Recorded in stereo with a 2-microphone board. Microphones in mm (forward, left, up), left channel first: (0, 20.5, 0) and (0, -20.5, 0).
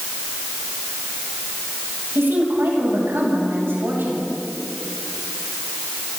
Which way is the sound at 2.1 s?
75° right (ahead or behind).